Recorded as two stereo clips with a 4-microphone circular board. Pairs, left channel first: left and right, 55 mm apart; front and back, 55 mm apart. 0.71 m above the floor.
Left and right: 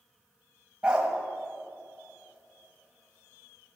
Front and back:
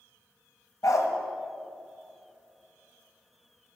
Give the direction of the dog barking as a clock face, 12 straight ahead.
1 o'clock.